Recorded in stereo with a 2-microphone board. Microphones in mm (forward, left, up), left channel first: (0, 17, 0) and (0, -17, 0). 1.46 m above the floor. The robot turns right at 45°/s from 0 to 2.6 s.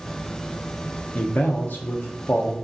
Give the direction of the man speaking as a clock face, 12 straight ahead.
11 o'clock.